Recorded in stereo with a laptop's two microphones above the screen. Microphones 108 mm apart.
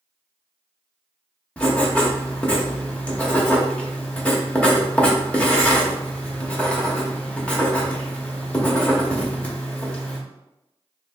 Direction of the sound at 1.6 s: 10° left (ahead or behind).